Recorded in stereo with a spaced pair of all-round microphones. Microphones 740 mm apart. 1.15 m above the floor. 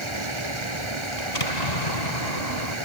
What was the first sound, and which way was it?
Running water, 40° right (ahead or behind).